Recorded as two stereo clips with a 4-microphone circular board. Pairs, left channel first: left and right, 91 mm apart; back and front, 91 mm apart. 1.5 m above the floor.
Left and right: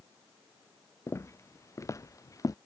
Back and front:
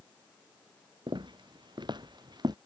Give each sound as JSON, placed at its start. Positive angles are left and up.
{"t": 1.1, "sound": "footsteps", "azimuth_deg": 30}